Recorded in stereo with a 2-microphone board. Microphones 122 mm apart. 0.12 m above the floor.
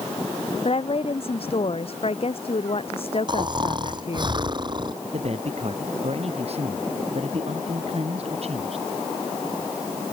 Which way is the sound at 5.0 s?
55° right (ahead or behind).